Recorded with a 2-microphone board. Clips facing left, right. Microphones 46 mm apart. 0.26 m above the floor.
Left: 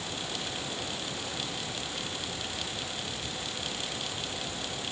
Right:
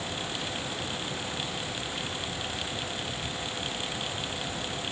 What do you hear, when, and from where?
Only background noise.